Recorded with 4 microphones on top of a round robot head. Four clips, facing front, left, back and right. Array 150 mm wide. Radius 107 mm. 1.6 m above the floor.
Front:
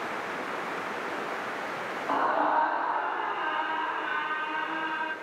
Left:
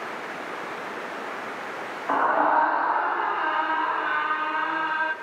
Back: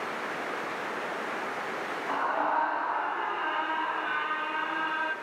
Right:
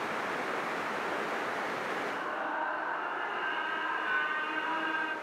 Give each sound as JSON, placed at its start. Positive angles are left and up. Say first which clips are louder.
{"t": 2.1, "sound": "a scream", "louder": "left 14 dB, front 3 dB", "azimuth_deg": 70, "distance_m": 1.1}